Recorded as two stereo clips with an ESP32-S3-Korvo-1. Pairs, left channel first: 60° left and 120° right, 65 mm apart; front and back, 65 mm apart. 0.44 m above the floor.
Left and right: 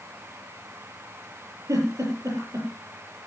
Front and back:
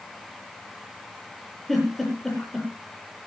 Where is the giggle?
85° right, 8.5 m.